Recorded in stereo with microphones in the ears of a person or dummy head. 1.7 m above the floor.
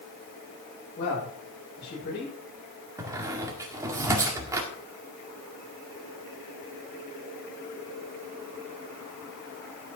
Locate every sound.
1.0 s a man speaking: 50° left (ahead or behind), 8 m
3.0 s a squeak: 15° right (ahead or behind), 1.9 m